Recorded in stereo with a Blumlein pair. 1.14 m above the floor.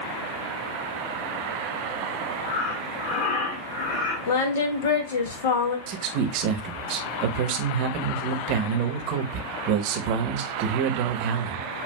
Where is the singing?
60° left, 0.8 m.